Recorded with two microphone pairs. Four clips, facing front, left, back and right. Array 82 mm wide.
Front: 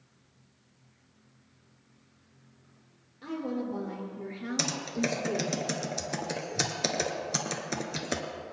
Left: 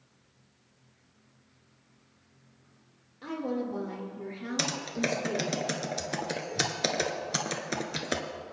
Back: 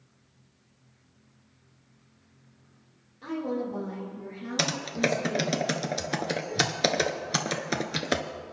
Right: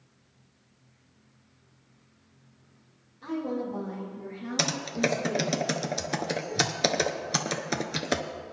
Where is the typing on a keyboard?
160° right, 0.8 m.